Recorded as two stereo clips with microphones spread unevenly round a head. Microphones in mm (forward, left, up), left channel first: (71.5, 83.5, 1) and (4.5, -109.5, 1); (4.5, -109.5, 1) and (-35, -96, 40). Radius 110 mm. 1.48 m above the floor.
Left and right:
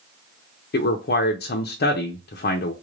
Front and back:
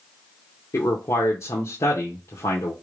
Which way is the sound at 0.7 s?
35° left.